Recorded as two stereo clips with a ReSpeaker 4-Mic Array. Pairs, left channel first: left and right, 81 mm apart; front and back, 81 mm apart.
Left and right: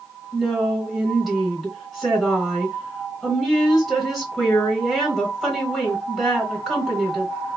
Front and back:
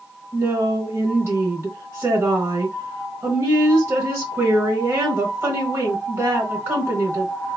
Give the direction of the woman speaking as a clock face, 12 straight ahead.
6 o'clock.